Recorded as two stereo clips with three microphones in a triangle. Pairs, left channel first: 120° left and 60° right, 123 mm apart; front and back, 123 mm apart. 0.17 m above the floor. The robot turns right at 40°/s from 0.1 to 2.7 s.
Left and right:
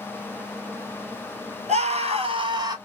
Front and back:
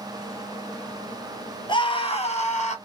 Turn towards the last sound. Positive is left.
turn(degrees=-5)